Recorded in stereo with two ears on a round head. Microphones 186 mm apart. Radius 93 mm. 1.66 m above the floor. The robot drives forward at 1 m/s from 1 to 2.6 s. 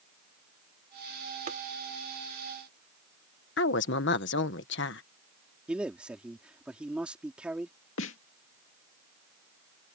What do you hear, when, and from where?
1.5 s tapping: 40° right (ahead or behind)
3.6 s a woman speaking: 60° left (ahead or behind)
5.7 s a man speaking: 5° right (ahead or behind)
8.0 s a snare drum: 70° left (ahead or behind)